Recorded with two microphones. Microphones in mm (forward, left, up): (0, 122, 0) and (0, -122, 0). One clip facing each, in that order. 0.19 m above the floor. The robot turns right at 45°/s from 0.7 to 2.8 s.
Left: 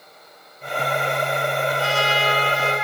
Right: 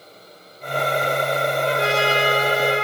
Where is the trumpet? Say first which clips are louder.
Right 3 dB; 85° right, 3.5 m; by 2.8 s 30° right, 3.5 m.